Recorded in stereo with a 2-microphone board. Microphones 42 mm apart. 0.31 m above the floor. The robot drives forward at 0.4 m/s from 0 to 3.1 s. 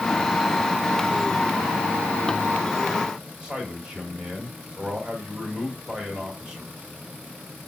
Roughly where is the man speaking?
Right.